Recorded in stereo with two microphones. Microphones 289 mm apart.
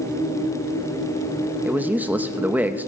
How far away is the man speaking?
About 0.8 m.